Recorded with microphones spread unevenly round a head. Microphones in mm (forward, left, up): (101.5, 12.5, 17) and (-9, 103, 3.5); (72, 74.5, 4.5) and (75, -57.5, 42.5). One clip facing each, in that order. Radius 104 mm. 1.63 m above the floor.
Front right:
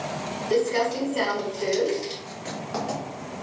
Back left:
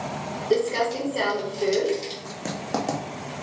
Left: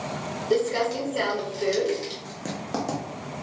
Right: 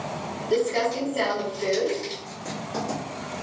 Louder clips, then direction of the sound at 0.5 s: Even, even; 80° left.